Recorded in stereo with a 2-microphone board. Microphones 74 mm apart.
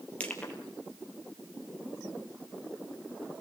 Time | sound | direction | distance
0.2 | crushing | 15° left (ahead or behind) | 3 m